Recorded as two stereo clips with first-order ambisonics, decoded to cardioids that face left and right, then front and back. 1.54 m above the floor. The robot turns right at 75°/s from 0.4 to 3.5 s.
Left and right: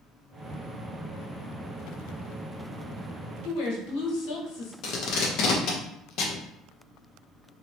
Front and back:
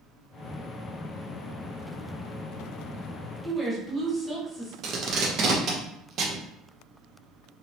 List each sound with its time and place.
3.4 s a woman speaking: 90° left, 1.2 m; by 4.7 s 95° left, 1.2 m
4.8 s tape being pulled: 130° left, 0.7 m